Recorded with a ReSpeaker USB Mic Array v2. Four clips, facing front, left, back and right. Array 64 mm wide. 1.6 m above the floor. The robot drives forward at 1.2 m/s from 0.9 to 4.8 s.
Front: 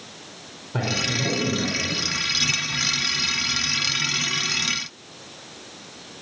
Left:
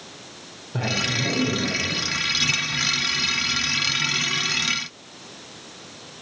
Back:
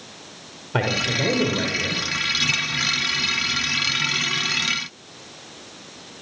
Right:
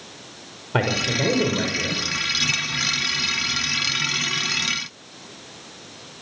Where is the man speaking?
120° right, 5 m; by 2.0 s 130° right, 6 m.